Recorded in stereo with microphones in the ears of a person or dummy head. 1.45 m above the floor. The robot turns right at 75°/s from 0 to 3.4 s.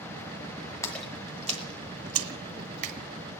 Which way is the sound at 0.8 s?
15° left (ahead or behind).